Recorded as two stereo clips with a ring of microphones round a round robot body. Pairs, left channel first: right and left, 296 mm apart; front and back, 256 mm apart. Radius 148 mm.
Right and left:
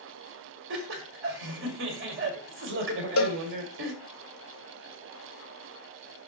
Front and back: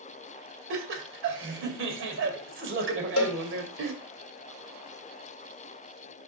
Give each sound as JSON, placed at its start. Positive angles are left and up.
{"t": 0.7, "sound": "laughter", "azimuth_deg": 140, "distance_m": 2.5}
{"t": 3.2, "sound": "a cowbell", "azimuth_deg": -45, "distance_m": 0.8}